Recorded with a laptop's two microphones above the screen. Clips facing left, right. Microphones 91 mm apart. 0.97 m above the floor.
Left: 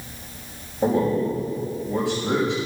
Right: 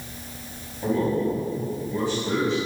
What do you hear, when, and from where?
0.8 s a man speaking: 80° left, 5.5 m